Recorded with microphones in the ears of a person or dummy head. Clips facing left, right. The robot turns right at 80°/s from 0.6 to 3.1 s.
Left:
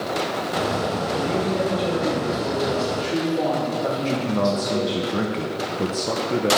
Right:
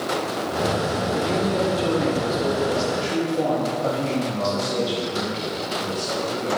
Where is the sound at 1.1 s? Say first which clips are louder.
Right 1 dB; 170° right, 3.5 m; by 5.0 s 10° right, 3.5 m.